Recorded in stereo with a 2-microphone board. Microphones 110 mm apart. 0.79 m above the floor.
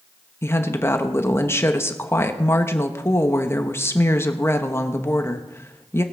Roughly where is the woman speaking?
Left.